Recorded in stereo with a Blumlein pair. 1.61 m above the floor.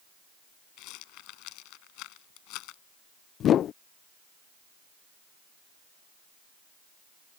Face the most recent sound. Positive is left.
turn(degrees=30)